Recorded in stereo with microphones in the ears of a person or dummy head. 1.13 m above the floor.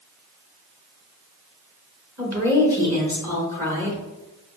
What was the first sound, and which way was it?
A woman speaking, 15° right (ahead or behind).